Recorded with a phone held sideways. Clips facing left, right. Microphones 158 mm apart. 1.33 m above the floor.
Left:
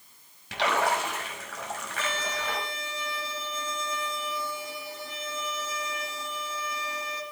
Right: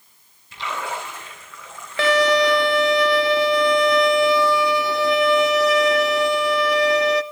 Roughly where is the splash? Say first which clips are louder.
Left 3 dB; left.